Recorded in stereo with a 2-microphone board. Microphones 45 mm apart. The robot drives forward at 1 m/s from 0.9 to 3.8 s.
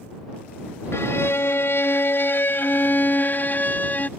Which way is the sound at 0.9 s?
70° left (ahead or behind).